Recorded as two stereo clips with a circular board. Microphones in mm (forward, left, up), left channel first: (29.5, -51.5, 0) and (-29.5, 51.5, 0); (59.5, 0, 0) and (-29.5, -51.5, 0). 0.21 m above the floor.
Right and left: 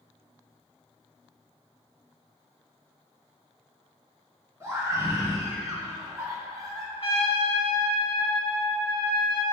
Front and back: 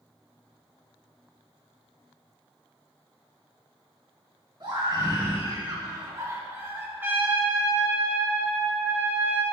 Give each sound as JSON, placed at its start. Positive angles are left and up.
{"t": 4.6, "sound": "a scream", "azimuth_deg": 180, "distance_m": 2.5}
{"t": 7.0, "sound": "a trumpet", "azimuth_deg": -85, "distance_m": 1.9}